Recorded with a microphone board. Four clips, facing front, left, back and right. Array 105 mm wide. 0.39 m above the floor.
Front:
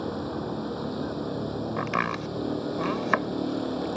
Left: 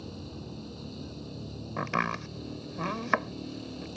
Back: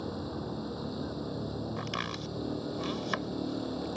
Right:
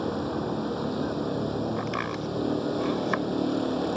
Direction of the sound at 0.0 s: 65° right.